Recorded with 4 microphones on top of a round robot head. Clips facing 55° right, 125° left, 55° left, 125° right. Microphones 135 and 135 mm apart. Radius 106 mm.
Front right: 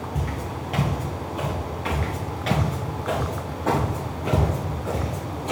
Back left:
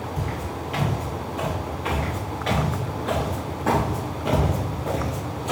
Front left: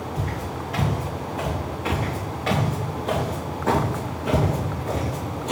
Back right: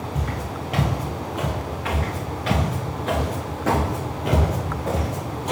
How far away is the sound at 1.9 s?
About 1.1 m.